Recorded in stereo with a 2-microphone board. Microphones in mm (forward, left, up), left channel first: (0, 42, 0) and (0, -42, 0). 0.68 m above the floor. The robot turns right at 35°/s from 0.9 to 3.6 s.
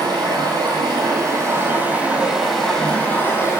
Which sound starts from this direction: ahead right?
Running water, at 0.0 s.